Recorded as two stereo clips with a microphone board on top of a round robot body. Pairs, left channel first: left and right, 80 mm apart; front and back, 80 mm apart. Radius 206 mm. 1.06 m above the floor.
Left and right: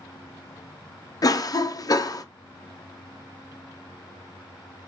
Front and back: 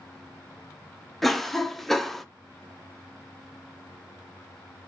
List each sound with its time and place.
1.2 s a cough: 90° left, 0.6 m